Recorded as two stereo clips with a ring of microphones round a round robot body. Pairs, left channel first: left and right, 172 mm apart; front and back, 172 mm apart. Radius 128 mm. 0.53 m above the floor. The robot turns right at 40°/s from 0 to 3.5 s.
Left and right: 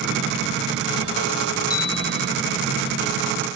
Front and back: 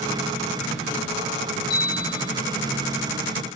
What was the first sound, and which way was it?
A bell, 25° left.